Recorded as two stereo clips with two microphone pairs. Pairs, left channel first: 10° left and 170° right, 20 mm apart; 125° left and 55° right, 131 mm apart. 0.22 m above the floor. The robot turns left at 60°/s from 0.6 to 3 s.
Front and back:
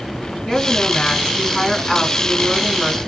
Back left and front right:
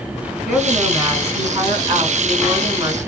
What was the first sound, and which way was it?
A woman speaking, 40° left.